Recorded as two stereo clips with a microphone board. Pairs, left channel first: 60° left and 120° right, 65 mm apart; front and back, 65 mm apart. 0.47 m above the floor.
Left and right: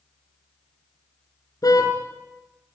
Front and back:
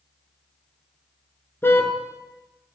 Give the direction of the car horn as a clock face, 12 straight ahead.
10 o'clock.